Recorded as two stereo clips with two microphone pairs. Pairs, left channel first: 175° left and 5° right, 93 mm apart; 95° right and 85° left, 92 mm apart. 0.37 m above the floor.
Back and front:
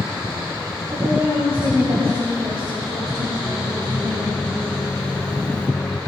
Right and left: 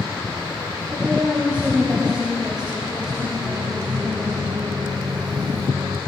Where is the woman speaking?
15° left, 8.5 m; by 4.4 s 20° right, 8 m.